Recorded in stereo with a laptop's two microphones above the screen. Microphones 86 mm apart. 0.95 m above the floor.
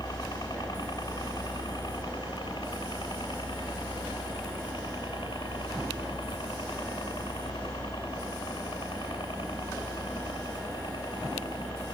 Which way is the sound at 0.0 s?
50° left (ahead or behind).